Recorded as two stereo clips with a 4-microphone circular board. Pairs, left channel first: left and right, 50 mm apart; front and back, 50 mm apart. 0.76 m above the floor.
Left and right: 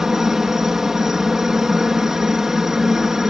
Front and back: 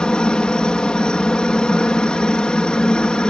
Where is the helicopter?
25° right.